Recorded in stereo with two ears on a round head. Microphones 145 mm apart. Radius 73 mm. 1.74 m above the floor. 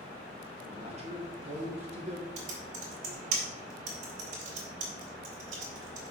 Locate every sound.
0.7 s a man speaking: 40° right (ahead or behind), 2 m
2.4 s typing on a keyboard: 50° right (ahead or behind), 3 m